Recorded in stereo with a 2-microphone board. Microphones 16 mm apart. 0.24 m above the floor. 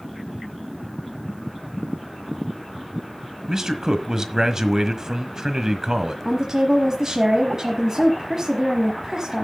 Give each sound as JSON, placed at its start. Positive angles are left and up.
{"t": 3.5, "sound": "a man speaking", "side_deg": -30, "distance_m": 1.3}
{"t": 6.2, "sound": "a woman speaking", "side_deg": -25, "distance_m": 1.4}